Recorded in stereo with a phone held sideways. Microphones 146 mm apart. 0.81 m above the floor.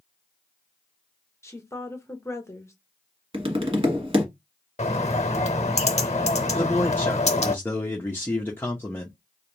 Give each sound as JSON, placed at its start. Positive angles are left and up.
{"t": 1.4, "sound": "a woman speaking", "side_deg": 20, "distance_m": 1.0}
{"t": 3.3, "sound": "tapping", "side_deg": -40, "distance_m": 1.2}
{"t": 4.8, "sound": "a bird", "side_deg": 50, "distance_m": 0.7}
{"t": 6.5, "sound": "a man speaking", "side_deg": 15, "distance_m": 0.7}